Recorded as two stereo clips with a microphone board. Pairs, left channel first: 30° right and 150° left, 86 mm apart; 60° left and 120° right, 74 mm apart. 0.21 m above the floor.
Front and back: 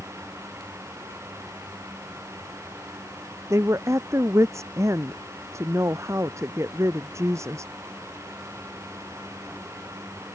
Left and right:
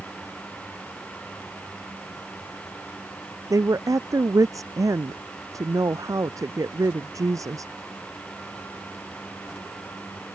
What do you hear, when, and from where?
3.5 s a woman speaking: 160° right